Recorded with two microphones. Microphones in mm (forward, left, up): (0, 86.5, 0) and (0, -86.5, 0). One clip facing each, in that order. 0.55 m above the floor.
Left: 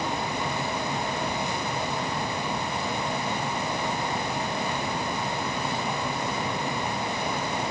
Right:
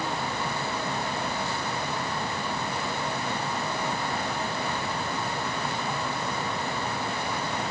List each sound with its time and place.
Only background noise.